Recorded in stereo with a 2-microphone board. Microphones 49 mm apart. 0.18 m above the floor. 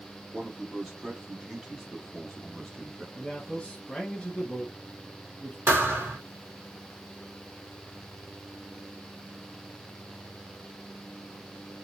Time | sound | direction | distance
0.3 | a man speaking | 15° right (ahead or behind) | 1.5 m
3.1 | a man speaking | 20° left (ahead or behind) | 1.0 m
5.7 | a thud | 50° right (ahead or behind) | 1.2 m